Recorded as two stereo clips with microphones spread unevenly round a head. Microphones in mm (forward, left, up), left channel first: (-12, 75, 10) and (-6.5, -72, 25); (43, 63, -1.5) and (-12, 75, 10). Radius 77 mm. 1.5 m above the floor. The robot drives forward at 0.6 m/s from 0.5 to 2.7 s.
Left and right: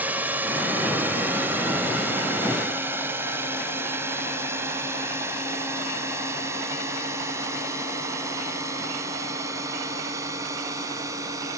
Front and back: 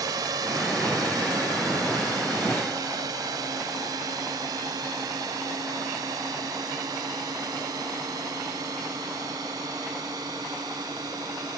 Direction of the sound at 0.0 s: 165° right.